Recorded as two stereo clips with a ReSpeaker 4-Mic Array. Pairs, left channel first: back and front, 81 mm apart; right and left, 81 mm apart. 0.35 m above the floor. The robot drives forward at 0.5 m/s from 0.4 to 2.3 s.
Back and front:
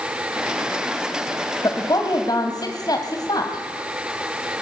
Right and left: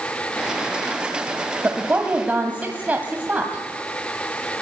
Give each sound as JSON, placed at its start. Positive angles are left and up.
{"t": 1.6, "sound": "a woman speaking", "azimuth_deg": 155, "distance_m": 1.6}